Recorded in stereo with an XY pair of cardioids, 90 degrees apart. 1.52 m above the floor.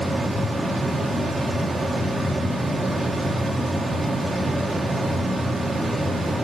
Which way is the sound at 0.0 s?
20° right.